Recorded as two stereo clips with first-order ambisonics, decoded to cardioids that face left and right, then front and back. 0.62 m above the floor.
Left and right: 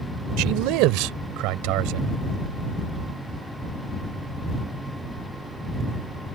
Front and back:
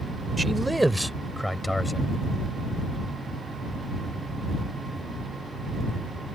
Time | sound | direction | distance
0.4 | a man speaking | 100° right | ?